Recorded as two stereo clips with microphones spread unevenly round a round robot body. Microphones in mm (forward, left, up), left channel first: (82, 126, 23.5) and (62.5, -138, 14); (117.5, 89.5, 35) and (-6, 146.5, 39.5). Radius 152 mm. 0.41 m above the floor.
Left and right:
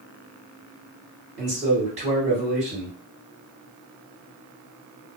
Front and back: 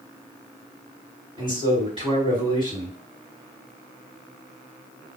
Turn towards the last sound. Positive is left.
turn(degrees=-155)